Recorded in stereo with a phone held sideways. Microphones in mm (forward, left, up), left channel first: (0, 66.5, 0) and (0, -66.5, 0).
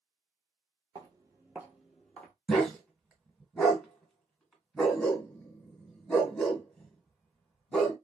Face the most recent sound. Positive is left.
turn(degrees=5)  # may be behind; listen again after turning